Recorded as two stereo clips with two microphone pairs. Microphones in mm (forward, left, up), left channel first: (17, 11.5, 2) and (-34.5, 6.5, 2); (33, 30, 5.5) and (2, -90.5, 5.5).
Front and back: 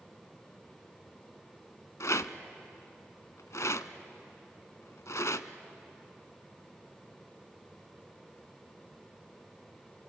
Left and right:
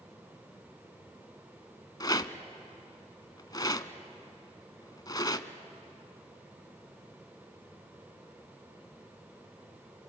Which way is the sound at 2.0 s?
15° left.